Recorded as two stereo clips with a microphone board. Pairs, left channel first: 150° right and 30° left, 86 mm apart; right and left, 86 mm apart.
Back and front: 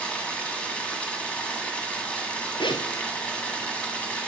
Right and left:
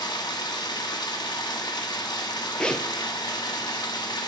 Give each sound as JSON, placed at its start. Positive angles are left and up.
{"t": 0.0, "sound": "running water", "azimuth_deg": -75, "distance_m": 1.7}
{"t": 2.6, "sound": "a zipper", "azimuth_deg": -170, "distance_m": 1.0}